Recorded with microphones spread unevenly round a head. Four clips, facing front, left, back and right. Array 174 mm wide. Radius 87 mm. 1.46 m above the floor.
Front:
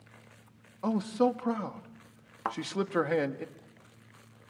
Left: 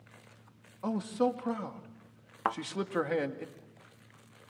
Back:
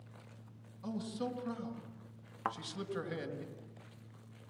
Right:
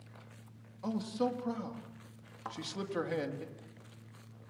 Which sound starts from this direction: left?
A thud, at 2.5 s.